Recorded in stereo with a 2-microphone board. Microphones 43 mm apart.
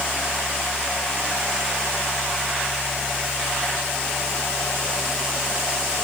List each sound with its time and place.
Only background noise.